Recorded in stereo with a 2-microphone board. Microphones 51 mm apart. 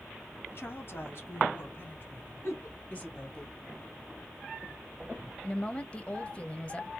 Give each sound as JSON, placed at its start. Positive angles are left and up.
{"t": 0.5, "sound": "a woman speaking", "side_deg": 45, "distance_m": 2.5}
{"t": 2.4, "sound": "a giggle", "side_deg": 55, "distance_m": 2.5}
{"t": 5.4, "sound": "a woman speaking", "side_deg": 20, "distance_m": 0.9}